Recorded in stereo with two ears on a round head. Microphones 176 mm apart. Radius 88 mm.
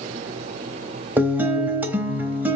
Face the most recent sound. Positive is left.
turn(degrees=-10)  # may be behind; listen again after turning